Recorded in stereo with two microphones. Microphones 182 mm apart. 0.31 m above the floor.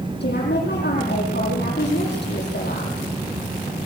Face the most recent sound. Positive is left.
turn(degrees=70)  # may be behind; listen again after turning